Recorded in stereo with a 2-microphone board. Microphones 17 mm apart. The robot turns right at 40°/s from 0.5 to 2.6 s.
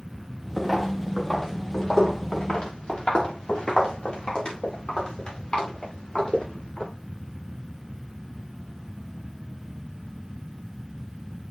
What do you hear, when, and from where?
0.6 s footsteps: centre (ahead or behind), 6 m; by 6.9 s 75° left (ahead or behind), 15.5 m